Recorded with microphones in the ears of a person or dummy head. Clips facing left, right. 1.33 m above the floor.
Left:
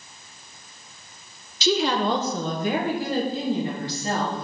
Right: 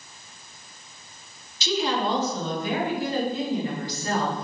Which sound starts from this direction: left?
A woman speaking, at 1.6 s.